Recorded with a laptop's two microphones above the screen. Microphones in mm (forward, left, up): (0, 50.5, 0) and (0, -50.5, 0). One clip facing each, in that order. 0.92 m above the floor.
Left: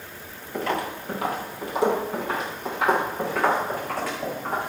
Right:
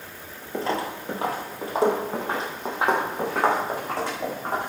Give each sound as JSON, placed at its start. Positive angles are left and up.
{"t": 0.5, "sound": "footsteps", "side_deg": -30, "distance_m": 1.1}